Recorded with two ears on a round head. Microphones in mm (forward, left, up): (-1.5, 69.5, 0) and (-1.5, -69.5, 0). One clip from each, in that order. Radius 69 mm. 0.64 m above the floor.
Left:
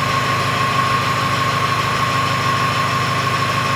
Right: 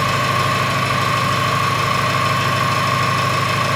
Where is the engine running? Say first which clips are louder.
Even; 55° right (ahead or behind), 1.0 m.